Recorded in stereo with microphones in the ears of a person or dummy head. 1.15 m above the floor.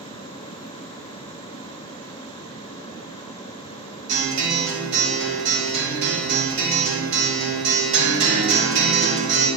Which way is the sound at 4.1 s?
80° right.